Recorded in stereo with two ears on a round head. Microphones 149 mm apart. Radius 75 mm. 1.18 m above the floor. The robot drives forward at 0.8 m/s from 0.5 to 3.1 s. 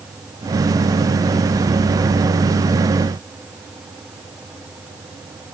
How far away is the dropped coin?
I don't hear a dropped coin.